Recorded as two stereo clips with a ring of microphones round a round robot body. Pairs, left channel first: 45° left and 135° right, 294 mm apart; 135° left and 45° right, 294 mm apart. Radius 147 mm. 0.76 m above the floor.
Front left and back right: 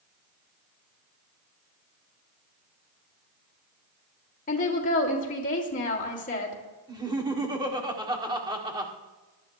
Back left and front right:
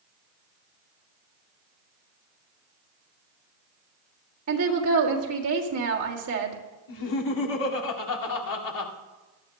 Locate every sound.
4.5 s a woman speaking: 15° right, 1.7 m
6.9 s laughter: 150° left, 2.0 m